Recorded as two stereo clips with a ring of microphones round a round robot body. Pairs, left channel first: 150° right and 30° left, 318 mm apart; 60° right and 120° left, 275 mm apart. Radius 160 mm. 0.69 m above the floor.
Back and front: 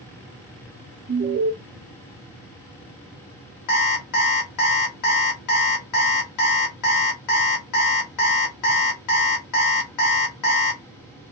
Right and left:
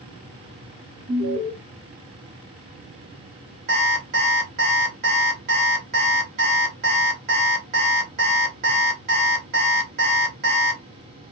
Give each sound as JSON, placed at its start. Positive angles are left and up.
{"t": 1.1, "sound": "an alarm", "azimuth_deg": 85, "distance_m": 1.7}
{"t": 3.7, "sound": "an alarm clock", "azimuth_deg": 180, "distance_m": 1.2}